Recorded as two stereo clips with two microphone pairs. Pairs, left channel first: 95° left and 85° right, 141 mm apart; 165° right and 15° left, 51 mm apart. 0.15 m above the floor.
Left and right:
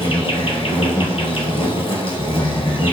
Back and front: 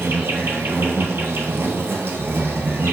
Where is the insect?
50° left, 0.9 m.